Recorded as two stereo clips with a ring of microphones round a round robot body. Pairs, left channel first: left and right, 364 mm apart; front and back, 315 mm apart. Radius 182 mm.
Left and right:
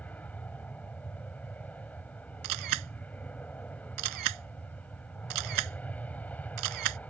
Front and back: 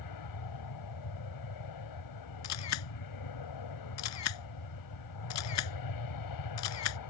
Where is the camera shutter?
50° right.